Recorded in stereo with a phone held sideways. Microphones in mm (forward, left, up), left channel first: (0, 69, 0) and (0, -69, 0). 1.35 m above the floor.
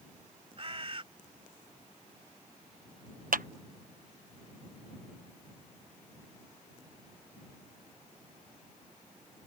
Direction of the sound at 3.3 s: 85° right.